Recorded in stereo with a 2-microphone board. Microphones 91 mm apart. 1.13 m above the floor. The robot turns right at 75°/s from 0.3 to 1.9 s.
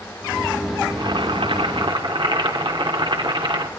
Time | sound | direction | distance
0.9 | boiling | 140° right | 3 m